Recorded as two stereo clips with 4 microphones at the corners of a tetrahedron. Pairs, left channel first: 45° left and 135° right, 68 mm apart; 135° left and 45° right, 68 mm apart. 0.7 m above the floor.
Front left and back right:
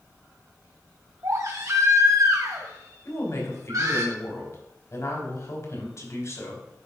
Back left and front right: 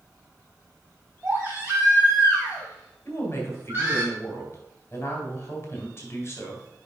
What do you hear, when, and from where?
1.2 s a baby crying: 105° right, 2 m
3.0 s a woman speaking: 85° left, 3 m